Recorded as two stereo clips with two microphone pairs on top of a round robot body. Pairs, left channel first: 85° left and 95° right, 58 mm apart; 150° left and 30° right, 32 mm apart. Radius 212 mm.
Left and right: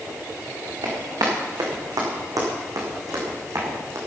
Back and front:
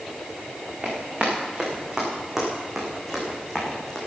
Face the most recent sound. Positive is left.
turn(degrees=-135)